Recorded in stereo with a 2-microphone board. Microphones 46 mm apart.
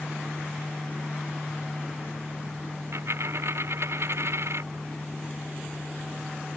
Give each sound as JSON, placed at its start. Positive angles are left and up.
{"t": 2.9, "sound": "a dropped coin", "side_deg": -65}